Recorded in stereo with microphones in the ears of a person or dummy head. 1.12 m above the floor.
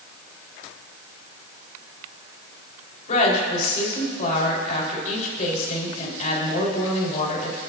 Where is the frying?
I don't hear frying.